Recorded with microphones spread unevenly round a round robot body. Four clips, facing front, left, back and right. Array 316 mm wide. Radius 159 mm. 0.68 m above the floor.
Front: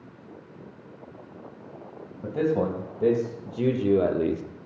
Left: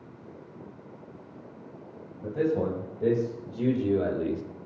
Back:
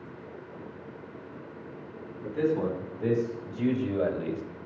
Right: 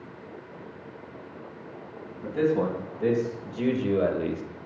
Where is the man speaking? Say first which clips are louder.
Right 2 dB, front 2 dB; straight ahead, 4.5 m; by 4.4 s 5° right, 1.2 m.